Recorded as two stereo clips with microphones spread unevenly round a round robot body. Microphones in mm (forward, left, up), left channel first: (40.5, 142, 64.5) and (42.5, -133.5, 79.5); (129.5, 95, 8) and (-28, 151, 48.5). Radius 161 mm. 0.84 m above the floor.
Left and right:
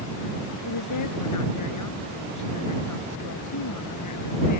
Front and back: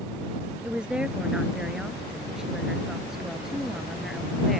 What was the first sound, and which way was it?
A woman speaking, 75° left.